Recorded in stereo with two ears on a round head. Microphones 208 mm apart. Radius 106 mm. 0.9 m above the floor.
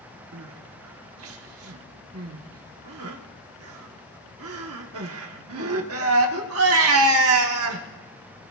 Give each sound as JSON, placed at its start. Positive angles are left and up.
{"t": 0.3, "sound": "crying", "side_deg": -60, "distance_m": 1.2}